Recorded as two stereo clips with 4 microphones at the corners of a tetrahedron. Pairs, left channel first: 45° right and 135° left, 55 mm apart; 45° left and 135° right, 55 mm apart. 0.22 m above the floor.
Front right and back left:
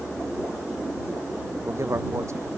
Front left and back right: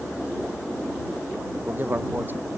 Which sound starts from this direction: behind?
A man speaking, at 1.5 s.